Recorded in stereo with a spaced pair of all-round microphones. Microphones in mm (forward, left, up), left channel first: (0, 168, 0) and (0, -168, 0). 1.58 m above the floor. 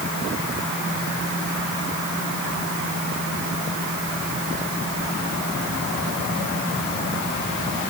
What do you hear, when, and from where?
Only background noise.